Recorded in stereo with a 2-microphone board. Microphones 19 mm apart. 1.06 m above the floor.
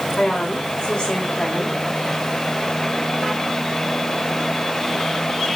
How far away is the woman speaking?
About 3 m.